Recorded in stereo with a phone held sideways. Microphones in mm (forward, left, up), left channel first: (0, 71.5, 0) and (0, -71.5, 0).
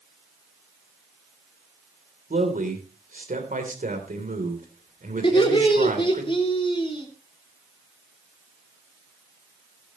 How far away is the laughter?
About 3 m.